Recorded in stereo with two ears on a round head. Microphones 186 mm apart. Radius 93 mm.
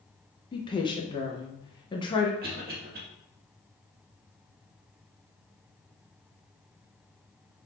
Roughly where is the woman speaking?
Left.